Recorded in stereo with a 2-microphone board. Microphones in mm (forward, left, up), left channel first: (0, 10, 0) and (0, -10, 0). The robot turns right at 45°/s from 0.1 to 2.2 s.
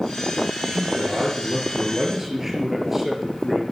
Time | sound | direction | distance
0.7 | a man speaking | 85° right | 4.5 m